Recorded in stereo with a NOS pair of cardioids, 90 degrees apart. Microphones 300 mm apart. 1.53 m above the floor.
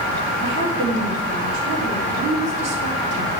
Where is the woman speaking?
60° right, 3.5 m.